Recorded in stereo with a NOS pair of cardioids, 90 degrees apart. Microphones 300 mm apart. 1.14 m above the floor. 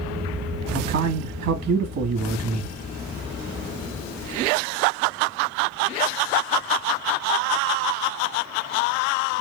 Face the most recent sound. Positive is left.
turn(degrees=-60)